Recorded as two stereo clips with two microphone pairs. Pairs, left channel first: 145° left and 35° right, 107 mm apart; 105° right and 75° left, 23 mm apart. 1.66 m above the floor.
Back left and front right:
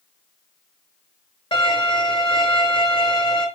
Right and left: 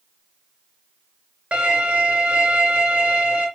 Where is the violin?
105° left, 4 m.